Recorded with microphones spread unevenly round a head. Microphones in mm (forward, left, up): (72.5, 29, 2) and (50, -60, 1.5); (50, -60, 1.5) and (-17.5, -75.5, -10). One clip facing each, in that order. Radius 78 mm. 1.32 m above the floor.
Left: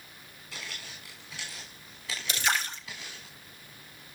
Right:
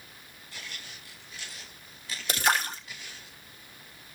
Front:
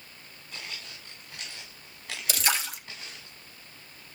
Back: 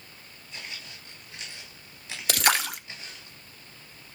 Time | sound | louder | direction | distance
0.5 | footsteps | left 2 dB, even | 75° left | 6 m
2.3 | a splash | right 4 dB, back 5 dB | 150° right | 1.1 m